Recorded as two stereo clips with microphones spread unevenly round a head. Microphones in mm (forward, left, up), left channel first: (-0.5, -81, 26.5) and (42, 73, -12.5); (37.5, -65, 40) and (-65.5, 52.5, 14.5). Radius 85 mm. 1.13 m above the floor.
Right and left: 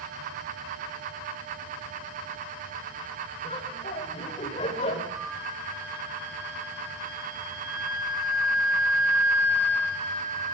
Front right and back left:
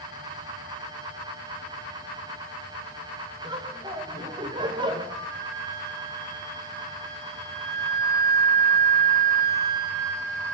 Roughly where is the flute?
Behind left.